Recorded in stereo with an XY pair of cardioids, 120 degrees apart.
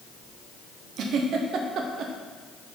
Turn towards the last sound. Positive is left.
turn(degrees=-65)